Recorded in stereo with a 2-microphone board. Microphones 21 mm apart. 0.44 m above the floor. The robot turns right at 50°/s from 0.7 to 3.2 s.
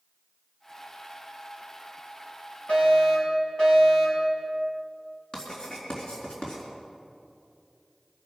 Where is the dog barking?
I don't hear a dog barking.